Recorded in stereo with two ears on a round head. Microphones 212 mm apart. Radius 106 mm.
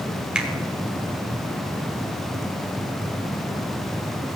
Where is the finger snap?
5° right (ahead or behind), 1.9 m.